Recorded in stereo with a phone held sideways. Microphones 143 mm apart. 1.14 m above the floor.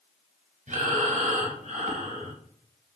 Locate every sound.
0.7 s breathing: 55° right (ahead or behind), 0.7 m